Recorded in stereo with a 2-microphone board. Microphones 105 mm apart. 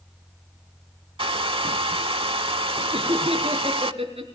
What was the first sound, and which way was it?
A hair dryer, 60° right (ahead or behind).